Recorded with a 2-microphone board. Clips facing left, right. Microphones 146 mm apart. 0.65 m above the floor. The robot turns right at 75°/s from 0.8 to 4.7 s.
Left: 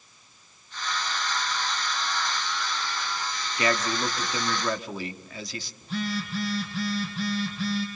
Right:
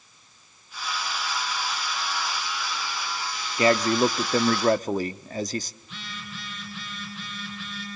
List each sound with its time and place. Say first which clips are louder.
3.6 s a man speaking: right 7 dB; 145° right, 1.0 m; by 5.7 s 60° right, 1.0 m
5.8 s a phone buzzing: left 12 dB; 40° left (ahead or behind), 6.5 m